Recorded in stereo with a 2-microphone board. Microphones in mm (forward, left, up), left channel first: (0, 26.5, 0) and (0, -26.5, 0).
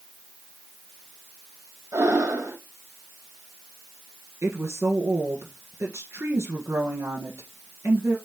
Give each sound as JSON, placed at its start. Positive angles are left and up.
{"t": 1.9, "sound": "breathing", "side_deg": -70, "distance_m": 2.0}
{"t": 4.4, "sound": "a woman speaking", "side_deg": -55, "distance_m": 1.7}